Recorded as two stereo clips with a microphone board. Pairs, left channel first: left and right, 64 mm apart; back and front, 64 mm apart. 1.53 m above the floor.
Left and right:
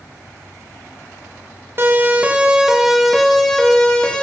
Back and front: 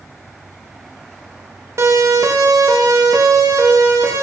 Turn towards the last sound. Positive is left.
turn(degrees=15)